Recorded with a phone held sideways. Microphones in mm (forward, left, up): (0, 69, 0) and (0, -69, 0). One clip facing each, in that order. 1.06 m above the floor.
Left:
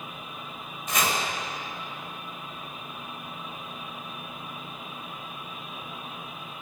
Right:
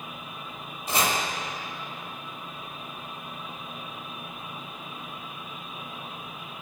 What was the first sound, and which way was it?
Chopping, 30° right (ahead or behind).